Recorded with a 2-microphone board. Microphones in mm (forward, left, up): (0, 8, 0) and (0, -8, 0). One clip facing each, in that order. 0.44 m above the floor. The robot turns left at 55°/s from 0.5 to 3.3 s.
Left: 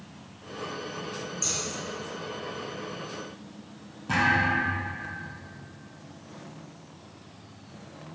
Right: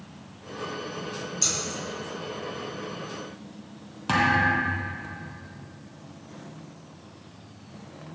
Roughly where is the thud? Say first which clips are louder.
Right 2 dB; right.